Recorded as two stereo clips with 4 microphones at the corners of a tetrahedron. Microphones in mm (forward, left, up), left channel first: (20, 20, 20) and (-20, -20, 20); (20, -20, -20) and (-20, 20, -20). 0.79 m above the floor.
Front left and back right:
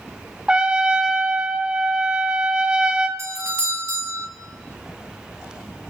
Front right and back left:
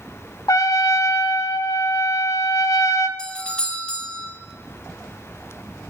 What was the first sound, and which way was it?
A trumpet, 60° right.